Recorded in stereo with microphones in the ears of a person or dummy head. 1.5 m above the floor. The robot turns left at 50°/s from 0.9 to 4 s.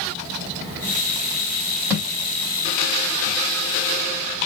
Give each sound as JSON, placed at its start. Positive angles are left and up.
{"t": 1.9, "sound": "a thud", "side_deg": -10, "distance_m": 2.0}